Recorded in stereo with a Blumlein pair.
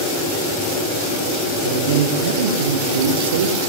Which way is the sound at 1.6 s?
60° right.